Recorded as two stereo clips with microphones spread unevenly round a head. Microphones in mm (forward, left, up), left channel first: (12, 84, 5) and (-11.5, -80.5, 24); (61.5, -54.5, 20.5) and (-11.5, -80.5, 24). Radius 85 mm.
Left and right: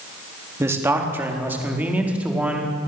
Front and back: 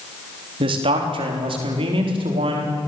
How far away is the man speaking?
About 3.5 m.